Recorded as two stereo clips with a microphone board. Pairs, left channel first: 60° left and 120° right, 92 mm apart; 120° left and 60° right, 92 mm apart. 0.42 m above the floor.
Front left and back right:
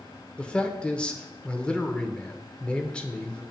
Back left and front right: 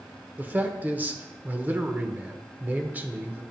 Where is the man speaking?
5° right, 0.8 m.